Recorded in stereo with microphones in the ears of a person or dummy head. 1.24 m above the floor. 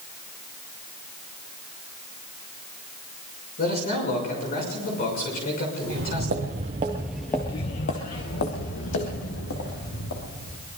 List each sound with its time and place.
3.6 s a man speaking: 50° left (ahead or behind), 6 m
5.8 s footsteps: 55° right (ahead or behind), 2.5 m; by 10.7 s 80° left, 5.5 m